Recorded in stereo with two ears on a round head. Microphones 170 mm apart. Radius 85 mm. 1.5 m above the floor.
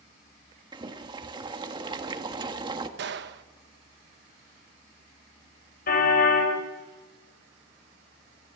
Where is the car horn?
50° left (ahead or behind), 4.5 m.